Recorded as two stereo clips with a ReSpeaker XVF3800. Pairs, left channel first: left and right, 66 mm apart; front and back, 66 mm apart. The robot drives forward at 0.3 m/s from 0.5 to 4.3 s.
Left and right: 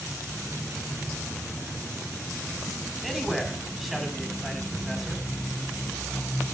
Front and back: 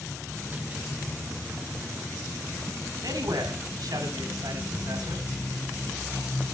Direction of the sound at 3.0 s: Straight behind.